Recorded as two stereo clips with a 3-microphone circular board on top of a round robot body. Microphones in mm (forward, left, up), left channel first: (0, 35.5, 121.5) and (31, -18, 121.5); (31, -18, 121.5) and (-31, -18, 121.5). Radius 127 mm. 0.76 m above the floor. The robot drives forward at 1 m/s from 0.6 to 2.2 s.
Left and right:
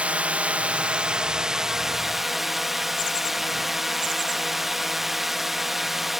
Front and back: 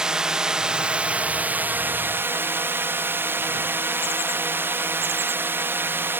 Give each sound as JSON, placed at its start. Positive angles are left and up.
{"t": 0.0, "sound": "a drone", "azimuth_deg": -110}